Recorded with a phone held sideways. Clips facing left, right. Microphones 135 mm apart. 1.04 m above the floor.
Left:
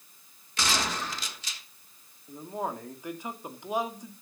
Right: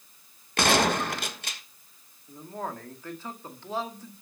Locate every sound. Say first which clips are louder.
0.6 s a gunshot: right 8 dB; 65° right (ahead or behind), 1.3 m
2.3 s a man speaking: left 2 dB; 15° left (ahead or behind), 2 m